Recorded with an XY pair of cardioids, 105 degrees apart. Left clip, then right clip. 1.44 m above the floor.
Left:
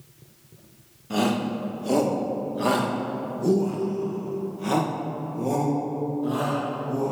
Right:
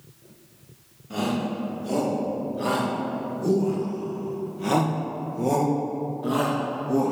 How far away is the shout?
About 2.5 m.